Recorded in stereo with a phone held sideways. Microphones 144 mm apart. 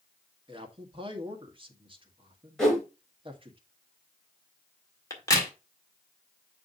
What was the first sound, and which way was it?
A man speaking, 35° right (ahead or behind).